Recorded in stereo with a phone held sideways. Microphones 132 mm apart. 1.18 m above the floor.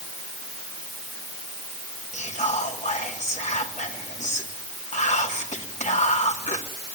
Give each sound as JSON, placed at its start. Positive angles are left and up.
{"t": 2.1, "sound": "whispering", "side_deg": 65, "distance_m": 3.0}